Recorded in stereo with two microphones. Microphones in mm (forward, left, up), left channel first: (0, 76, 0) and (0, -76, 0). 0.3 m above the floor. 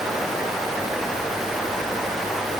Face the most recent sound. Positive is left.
No sound to turn to.